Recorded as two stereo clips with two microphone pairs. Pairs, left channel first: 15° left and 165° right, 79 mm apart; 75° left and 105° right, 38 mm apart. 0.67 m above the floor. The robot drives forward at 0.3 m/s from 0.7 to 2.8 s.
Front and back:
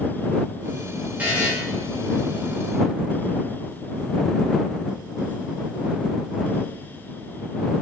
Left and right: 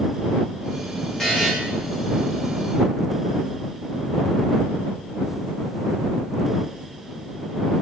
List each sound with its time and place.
1.2 s a buzzer: 135° left, 0.5 m; by 1.5 s 145° left, 0.6 m